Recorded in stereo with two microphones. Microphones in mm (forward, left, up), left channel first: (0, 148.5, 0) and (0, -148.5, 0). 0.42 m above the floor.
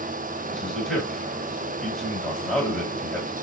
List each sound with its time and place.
0.5 s a man speaking: 5° left (ahead or behind), 1.3 m